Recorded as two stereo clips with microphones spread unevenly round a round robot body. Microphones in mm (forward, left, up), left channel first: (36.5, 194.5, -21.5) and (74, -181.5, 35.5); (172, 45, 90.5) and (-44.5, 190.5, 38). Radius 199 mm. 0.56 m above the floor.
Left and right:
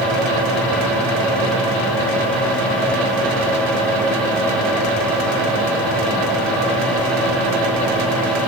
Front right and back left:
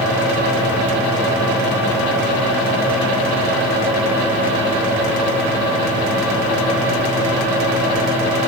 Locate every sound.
Only background noise.